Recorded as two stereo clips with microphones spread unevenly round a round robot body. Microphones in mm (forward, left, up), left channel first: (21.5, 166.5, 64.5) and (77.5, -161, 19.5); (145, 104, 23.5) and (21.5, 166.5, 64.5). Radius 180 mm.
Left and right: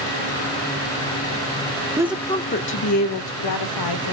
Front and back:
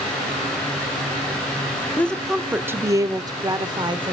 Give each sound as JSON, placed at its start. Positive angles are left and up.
{"t": 2.0, "sound": "a woman speaking", "azimuth_deg": -35, "distance_m": 0.7}